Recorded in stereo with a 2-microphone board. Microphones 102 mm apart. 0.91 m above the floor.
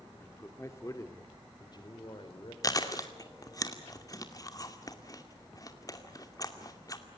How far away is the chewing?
About 2 m.